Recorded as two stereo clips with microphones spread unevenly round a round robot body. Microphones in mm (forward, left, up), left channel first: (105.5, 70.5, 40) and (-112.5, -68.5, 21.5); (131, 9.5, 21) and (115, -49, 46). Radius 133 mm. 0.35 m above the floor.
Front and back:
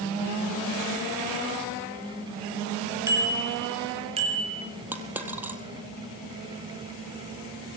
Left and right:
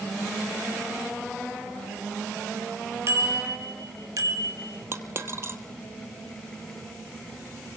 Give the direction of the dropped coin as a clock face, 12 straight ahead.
2 o'clock.